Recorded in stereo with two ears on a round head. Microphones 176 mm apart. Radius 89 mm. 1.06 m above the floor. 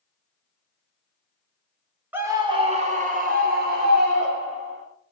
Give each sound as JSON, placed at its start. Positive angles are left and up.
{"t": 2.1, "sound": "a scream", "side_deg": -10, "distance_m": 1.4}